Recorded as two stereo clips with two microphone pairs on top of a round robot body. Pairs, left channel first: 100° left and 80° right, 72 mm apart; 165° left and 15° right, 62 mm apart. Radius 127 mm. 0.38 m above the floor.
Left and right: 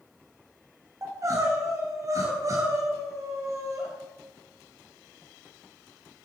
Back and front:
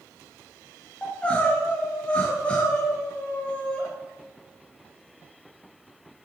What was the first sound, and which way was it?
Crying, 125° right.